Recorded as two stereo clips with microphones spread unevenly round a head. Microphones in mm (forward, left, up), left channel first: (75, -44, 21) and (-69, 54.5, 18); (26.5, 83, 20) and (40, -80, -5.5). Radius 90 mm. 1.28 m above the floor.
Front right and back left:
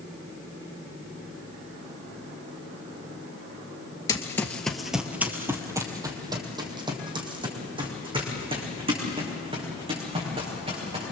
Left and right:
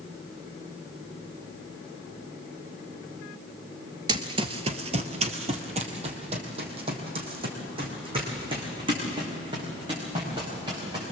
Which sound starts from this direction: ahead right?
Running footsteps, at 4.1 s.